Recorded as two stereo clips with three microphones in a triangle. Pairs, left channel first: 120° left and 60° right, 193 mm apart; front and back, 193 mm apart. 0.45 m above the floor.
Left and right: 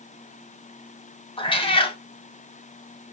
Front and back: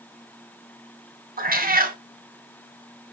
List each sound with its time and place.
1.4 s a cat meowing: 170° left, 0.7 m